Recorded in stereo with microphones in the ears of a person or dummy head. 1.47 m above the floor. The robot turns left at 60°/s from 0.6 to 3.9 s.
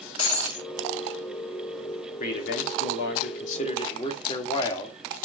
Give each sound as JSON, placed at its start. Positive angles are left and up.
{"t": 0.2, "sound": "breaking glass", "side_deg": 40, "distance_m": 3.0}
{"t": 2.2, "sound": "a man speaking", "azimuth_deg": 130, "distance_m": 3.0}